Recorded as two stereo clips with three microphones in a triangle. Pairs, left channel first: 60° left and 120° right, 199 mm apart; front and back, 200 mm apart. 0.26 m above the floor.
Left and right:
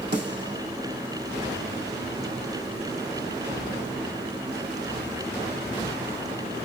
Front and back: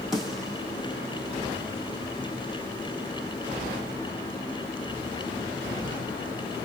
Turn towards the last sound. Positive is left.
turn(degrees=-90)